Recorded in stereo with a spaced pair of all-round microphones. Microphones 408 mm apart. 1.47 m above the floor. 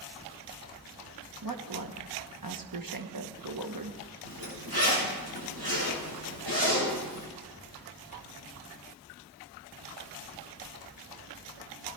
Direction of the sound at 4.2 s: 65° right (ahead or behind).